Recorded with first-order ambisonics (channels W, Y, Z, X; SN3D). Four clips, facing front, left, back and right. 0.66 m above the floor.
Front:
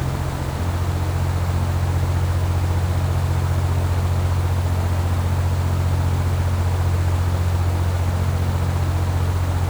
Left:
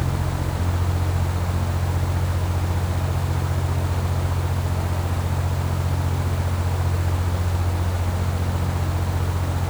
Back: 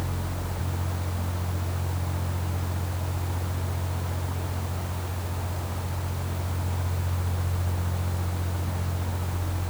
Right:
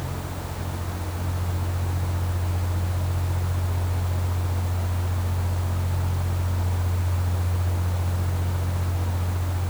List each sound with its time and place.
Only background noise.